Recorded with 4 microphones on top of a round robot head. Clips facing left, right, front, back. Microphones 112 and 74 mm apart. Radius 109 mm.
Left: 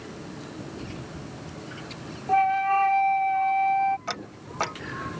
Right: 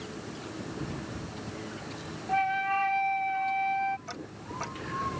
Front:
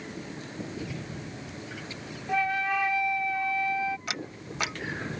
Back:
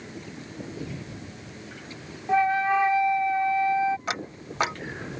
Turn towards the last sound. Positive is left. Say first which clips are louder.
# left 4 dB, back 4 dB
turn(degrees=125)